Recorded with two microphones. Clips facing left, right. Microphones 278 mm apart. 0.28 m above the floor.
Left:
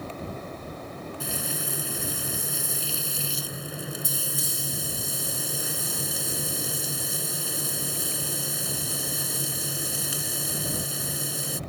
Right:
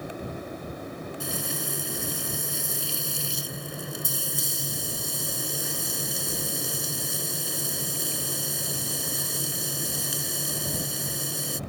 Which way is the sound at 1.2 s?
Centre (ahead or behind).